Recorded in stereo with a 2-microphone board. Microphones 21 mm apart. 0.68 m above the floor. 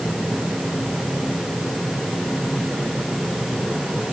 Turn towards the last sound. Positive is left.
No sound to turn to.